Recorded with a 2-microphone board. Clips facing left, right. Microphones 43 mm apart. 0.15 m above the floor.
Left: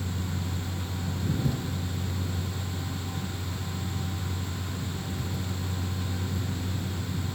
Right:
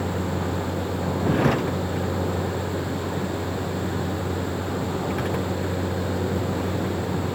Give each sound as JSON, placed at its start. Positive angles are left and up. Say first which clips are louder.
{"t": 0.0, "sound": "a vehicle", "louder": "right 9 dB", "side_deg": -65}